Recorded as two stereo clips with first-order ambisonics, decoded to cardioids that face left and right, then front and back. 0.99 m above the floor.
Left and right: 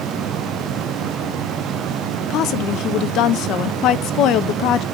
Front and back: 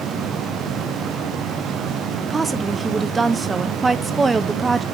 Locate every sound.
2.3 s a woman speaking: 110° left, 0.7 m